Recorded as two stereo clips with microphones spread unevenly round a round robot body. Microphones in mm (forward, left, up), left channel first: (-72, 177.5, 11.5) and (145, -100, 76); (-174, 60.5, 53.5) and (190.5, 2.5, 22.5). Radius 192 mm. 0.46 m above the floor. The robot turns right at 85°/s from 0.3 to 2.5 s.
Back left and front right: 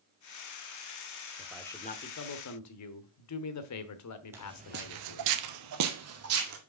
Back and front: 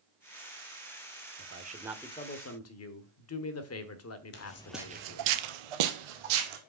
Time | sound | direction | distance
1.4 | a man speaking | 30° left | 1.2 m
4.3 | footsteps | 130° right | 0.9 m